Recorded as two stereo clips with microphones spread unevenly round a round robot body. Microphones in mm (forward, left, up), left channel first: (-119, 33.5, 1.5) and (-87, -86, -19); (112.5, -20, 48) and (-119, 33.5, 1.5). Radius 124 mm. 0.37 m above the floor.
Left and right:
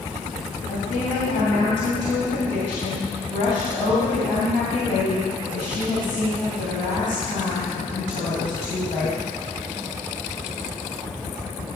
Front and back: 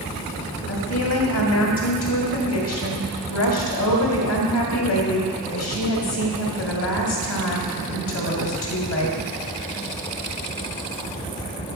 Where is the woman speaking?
20° left, 2.5 m.